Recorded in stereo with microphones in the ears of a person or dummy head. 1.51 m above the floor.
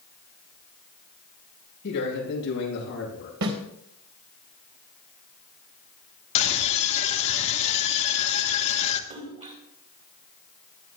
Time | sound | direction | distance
1.8 | a man speaking | 60° left (ahead or behind) | 9 m
3.4 | a snare drum | 65° right (ahead or behind) | 3 m
6.3 | a scream | 35° left (ahead or behind) | 2 m
9.1 | a splash | 35° right (ahead or behind) | 2 m